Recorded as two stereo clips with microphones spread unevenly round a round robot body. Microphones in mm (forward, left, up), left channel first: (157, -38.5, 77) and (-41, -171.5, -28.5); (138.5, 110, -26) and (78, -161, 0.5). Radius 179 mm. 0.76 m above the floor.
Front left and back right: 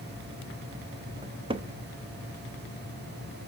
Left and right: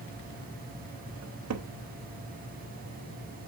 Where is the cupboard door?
105° right, 0.8 m.